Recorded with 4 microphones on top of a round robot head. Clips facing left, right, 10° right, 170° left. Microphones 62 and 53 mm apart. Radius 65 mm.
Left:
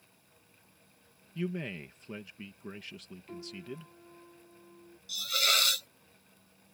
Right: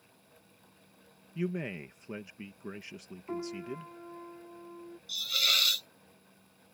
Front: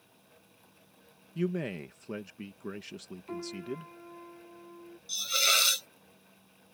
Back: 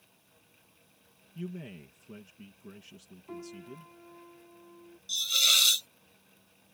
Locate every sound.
1.4 s a man speaking: 15° right
3.3 s a piano: 75° right
5.1 s a hiss: 30° left